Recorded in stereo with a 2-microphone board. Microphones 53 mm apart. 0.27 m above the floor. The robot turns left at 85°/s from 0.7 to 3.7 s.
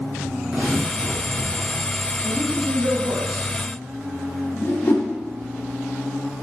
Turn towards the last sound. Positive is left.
turn(degrees=55)  # may be behind; listen again after turning